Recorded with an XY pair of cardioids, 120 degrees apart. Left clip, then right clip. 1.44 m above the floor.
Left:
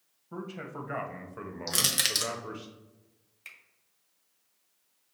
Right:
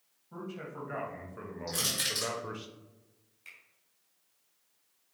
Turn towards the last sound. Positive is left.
turn(degrees=50)